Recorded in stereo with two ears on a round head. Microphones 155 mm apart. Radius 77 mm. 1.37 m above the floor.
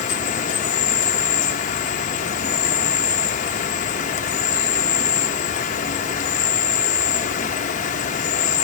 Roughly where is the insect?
Left.